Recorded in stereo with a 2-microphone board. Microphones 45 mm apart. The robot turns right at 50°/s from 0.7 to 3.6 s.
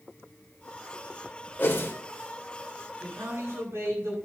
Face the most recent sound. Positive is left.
turn(degrees=-80)